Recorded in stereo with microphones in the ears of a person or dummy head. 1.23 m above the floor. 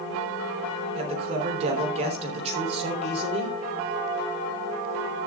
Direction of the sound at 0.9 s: 35° right (ahead or behind).